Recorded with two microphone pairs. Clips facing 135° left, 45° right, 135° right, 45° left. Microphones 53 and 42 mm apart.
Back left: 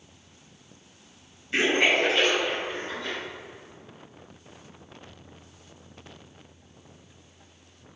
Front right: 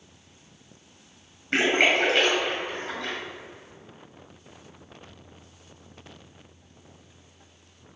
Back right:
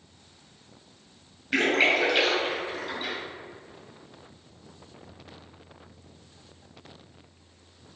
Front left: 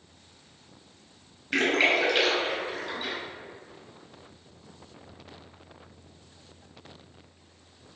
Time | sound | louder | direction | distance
1.5 | a splash | front right 1 dB, back right 1 dB | 50° right | 2 m